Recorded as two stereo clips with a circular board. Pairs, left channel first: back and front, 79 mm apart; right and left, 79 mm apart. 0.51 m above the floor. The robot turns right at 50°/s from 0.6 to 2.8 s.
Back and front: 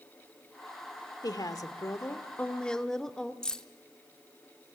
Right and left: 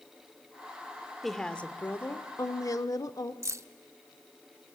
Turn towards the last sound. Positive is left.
turn(degrees=105)